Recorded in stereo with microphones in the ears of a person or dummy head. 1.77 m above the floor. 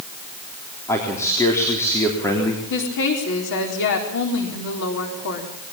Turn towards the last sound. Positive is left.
turn(degrees=65)  # may be behind; listen again after turning